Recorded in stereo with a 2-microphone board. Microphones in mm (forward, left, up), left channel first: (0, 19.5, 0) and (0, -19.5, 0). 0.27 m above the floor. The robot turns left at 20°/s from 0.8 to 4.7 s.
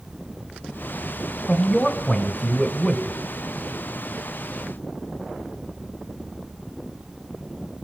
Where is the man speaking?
35° left, 1.3 m; by 3.2 s straight ahead, 1.3 m.